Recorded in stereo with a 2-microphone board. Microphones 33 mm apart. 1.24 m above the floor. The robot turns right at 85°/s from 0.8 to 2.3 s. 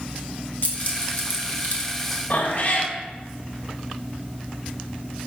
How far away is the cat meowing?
About 1.2 m.